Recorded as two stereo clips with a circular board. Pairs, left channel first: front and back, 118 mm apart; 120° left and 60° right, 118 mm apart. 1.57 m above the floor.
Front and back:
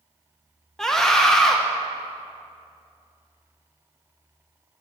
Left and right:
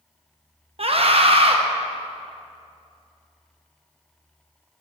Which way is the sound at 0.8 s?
85° right.